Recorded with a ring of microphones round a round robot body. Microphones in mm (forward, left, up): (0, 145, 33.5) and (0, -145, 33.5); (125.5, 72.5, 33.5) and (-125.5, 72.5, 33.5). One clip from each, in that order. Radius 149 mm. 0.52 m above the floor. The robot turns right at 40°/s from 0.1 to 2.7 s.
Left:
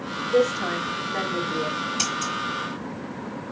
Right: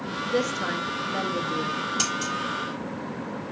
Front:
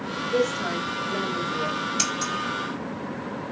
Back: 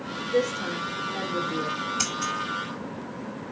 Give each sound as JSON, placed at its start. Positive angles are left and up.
{"t": 0.3, "sound": "a woman speaking", "azimuth_deg": -75, "distance_m": 1.2}
{"t": 2.0, "sound": "scissors", "azimuth_deg": 0, "distance_m": 2.0}